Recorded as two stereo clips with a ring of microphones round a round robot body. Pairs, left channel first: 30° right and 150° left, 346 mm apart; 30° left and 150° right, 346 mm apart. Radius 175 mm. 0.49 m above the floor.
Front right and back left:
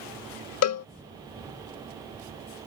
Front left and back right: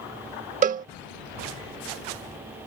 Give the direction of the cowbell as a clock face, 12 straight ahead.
3 o'clock.